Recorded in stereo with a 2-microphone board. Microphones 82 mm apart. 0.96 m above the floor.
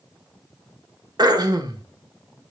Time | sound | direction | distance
1.2 | throat clearing | 55° right (ahead or behind) | 1.4 m